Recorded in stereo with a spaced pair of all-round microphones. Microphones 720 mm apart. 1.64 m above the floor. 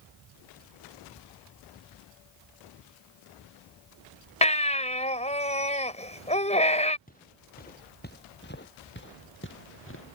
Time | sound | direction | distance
4.4 | a baby crying | 10° left (ahead or behind) | ?
7.1 | footsteps | 10° left (ahead or behind) | ?